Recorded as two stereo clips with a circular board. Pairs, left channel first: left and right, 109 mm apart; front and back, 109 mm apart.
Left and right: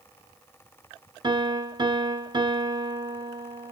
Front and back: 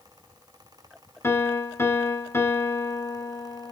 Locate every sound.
1.2 s a piano: 60° right, 1.2 m